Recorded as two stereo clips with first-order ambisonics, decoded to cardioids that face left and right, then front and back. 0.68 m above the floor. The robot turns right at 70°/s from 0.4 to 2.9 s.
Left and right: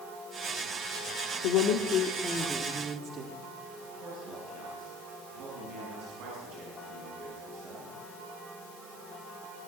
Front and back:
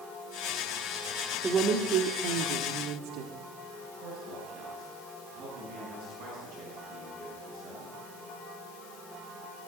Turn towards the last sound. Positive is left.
turn(degrees=-135)